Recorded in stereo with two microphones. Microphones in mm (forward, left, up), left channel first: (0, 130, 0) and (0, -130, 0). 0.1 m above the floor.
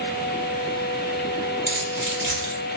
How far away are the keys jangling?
About 1.8 m.